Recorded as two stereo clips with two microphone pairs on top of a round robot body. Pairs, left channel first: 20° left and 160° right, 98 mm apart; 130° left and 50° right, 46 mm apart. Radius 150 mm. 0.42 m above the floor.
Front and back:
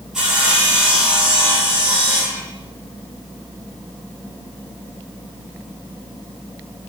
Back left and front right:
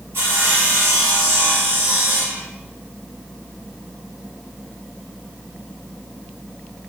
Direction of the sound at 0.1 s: 75° right.